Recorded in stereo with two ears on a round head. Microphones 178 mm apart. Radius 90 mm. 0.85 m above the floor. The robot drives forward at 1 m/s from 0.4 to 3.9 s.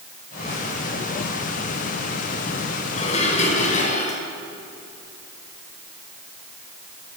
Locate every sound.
2.9 s dishes clattering: 30° left (ahead or behind), 5.5 m; by 4.2 s 40° left (ahead or behind), 4.5 m